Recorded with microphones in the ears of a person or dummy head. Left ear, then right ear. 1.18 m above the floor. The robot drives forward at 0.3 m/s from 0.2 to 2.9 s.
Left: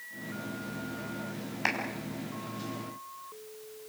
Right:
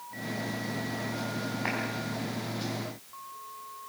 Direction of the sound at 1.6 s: 50° left (ahead or behind).